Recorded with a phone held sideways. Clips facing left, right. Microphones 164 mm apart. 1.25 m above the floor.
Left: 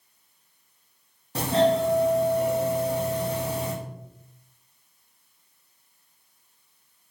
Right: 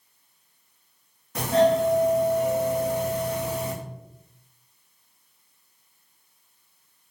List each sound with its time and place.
1.4 s a doorbell: 30° left (ahead or behind), 0.8 m